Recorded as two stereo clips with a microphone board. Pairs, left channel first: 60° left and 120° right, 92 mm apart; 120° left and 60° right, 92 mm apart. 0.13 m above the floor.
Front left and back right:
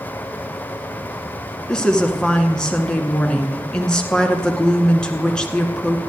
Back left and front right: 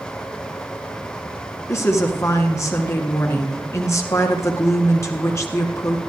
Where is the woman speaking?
135° left, 1.9 m.